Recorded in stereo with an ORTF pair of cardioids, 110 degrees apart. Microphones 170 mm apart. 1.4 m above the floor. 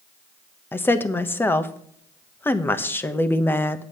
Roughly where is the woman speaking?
Ahead.